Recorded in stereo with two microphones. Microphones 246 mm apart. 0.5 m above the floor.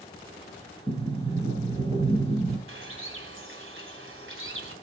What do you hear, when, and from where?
0.9 s a sliding door: 20° right (ahead or behind), 4 m
2.7 s a bird: 60° right (ahead or behind), 2.5 m